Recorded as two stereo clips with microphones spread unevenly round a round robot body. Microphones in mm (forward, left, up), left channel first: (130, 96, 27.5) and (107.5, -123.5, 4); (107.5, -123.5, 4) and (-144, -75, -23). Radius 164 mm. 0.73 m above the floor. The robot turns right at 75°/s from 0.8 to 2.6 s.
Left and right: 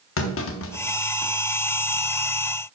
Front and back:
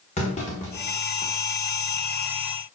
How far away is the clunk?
About 1.0 m.